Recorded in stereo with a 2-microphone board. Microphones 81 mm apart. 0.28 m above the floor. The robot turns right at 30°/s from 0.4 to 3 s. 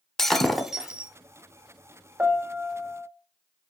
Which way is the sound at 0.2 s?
5° left (ahead or behind).